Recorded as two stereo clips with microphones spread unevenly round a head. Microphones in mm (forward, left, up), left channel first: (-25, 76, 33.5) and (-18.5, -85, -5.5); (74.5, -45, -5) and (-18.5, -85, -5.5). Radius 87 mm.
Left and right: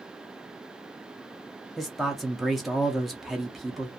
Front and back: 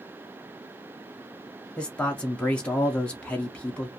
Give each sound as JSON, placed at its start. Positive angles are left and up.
{"t": 1.8, "sound": "a man speaking", "azimuth_deg": -35, "distance_m": 0.6}